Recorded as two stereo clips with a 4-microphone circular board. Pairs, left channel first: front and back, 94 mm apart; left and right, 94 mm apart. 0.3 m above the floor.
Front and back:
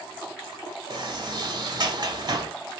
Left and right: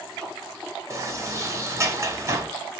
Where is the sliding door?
145° right, 0.9 m.